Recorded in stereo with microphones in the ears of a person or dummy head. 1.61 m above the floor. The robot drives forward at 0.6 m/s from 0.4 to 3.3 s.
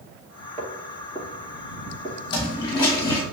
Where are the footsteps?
20° right (ahead or behind), 1.7 m; by 2.2 s 25° right (ahead or behind), 1.7 m.